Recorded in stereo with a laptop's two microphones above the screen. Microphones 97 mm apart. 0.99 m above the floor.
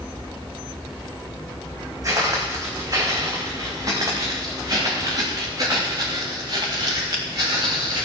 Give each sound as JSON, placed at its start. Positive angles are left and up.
{"t": 2.0, "sound": "footsteps", "side_deg": -35, "distance_m": 4.5}